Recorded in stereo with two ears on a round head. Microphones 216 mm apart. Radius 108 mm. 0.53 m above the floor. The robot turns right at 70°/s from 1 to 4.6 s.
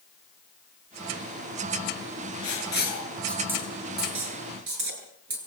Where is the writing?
65° left (ahead or behind), 8 m; by 5.4 s 85° right, 8 m.